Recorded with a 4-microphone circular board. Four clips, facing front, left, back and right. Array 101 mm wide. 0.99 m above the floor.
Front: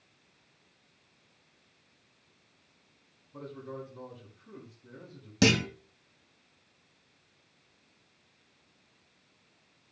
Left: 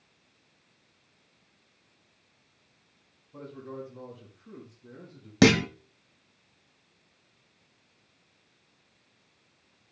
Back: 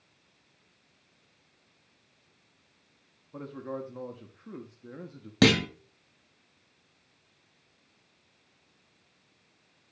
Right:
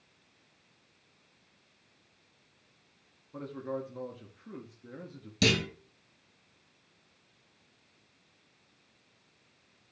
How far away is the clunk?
About 1.1 m.